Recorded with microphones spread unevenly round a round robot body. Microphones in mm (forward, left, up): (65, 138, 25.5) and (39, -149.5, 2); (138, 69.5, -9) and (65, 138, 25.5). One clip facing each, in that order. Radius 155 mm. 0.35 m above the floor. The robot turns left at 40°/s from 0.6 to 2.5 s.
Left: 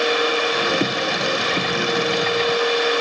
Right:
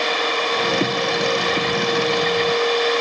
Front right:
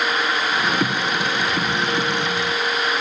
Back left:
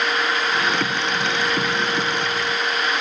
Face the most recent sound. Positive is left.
No sound to turn to.